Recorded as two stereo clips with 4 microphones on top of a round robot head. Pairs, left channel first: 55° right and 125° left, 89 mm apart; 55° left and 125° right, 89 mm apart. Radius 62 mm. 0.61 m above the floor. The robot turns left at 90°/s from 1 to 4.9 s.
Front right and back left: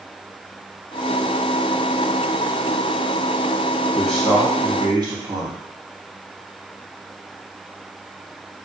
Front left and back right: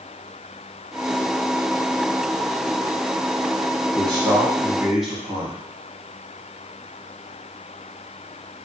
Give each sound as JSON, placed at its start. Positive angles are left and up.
{"t": 4.0, "sound": "a man speaking", "azimuth_deg": -125, "distance_m": 1.0}